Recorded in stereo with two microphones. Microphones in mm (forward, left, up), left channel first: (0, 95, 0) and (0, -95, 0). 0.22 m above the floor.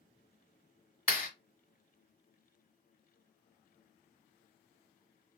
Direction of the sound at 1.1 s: 45° left (ahead or behind).